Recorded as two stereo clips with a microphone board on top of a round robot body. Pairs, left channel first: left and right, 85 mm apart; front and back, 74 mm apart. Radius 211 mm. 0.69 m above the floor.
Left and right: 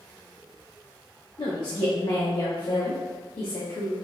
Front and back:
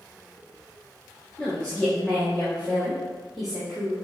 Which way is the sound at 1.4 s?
70° left.